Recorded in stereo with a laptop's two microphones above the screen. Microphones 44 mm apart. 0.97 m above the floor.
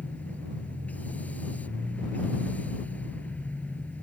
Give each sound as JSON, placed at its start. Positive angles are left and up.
{"t": 0.0, "sound": "a machine running", "side_deg": 35}